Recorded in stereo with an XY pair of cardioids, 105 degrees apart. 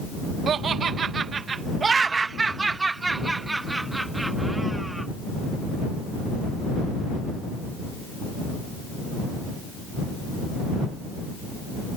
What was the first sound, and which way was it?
Laughter, 55° right.